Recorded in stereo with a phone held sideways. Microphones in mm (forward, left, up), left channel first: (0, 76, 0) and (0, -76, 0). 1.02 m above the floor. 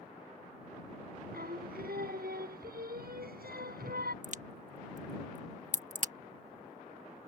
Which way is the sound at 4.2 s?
55° right (ahead or behind).